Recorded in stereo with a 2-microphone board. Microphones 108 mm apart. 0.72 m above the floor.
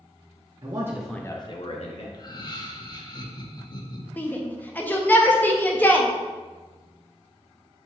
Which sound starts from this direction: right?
A man speaking, at 0.6 s.